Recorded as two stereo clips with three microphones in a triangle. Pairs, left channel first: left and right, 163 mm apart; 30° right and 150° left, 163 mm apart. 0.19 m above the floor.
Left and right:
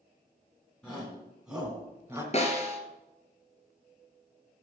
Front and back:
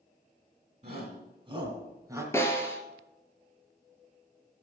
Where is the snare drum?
45° left, 1.8 m.